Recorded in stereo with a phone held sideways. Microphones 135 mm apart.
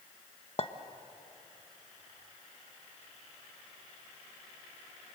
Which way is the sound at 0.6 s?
50° left (ahead or behind).